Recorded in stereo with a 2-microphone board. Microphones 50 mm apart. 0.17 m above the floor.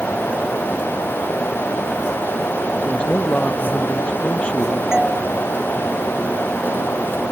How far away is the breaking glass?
No breaking glass in this recording.